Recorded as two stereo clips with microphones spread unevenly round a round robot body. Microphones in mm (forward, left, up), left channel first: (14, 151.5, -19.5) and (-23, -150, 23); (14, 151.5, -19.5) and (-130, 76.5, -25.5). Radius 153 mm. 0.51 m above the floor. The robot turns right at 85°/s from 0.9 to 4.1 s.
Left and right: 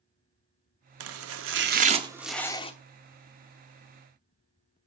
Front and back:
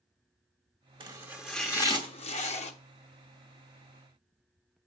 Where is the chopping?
105° right, 0.8 m; by 2.7 s 40° left, 0.8 m.